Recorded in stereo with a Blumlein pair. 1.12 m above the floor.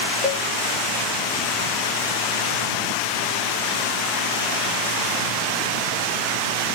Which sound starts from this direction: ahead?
A cowbell, at 0.2 s.